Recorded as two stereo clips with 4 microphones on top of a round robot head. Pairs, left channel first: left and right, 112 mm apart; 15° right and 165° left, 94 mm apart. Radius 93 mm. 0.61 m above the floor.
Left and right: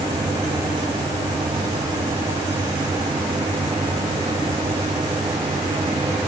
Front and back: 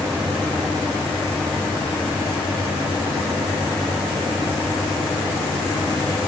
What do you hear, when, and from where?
Only background noise.